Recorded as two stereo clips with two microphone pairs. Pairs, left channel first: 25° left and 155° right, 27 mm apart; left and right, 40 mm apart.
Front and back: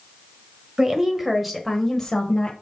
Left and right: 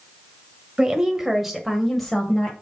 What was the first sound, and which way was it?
A woman speaking, 130° right.